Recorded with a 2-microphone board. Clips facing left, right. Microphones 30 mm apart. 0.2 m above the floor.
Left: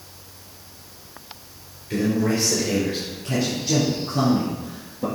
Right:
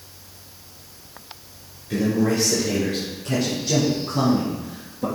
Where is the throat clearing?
I don't hear throat clearing.